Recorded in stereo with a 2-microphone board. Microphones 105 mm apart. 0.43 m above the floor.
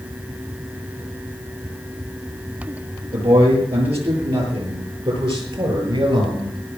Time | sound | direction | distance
3.1 | a man speaking | 85° right | 8 m